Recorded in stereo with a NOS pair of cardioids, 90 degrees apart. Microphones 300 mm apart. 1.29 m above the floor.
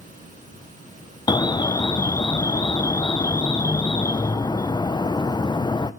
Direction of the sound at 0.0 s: 25° right.